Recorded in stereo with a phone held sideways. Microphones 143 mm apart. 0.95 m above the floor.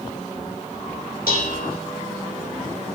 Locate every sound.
1.3 s dishes clattering: 80° left, 1.8 m